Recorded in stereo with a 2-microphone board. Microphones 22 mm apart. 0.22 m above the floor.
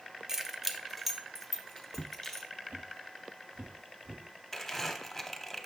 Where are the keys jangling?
25° right (ahead or behind), 0.6 m; by 2.5 s 15° left (ahead or behind), 1.7 m.